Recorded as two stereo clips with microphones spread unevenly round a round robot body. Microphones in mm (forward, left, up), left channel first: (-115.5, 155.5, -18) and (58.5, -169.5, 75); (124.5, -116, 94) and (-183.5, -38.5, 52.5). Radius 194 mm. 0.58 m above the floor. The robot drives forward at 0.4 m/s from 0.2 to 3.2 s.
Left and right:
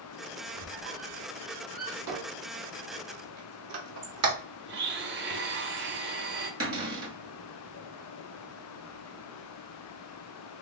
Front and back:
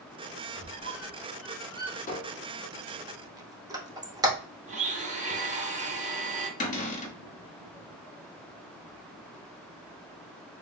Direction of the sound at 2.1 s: 85° right.